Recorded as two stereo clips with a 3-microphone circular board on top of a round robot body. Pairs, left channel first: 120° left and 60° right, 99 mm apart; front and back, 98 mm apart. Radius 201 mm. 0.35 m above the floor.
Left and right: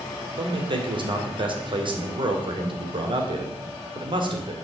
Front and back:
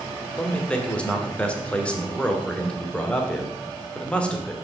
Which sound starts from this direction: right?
A man speaking, at 0.4 s.